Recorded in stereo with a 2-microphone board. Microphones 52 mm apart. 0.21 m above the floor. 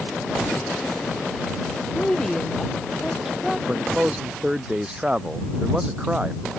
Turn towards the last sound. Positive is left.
turn(degrees=-20)  # may be behind; listen again after turning